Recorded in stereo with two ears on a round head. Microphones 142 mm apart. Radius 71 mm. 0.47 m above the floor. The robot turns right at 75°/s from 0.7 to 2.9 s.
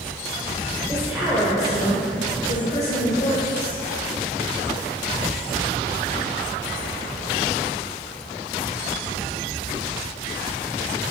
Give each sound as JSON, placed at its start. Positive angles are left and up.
{"t": 0.9, "sound": "a woman speaking", "azimuth_deg": -25, "distance_m": 1.5}